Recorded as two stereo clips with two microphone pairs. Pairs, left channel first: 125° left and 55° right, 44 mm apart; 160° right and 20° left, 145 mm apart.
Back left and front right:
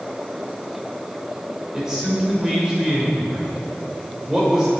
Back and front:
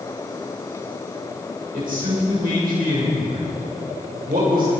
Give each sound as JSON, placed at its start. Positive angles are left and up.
{"t": 1.7, "sound": "a man speaking", "azimuth_deg": 20, "distance_m": 6.0}